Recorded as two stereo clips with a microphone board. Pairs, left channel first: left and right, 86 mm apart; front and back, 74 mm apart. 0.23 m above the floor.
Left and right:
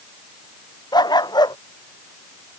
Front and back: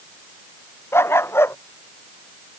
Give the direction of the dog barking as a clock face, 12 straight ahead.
10 o'clock.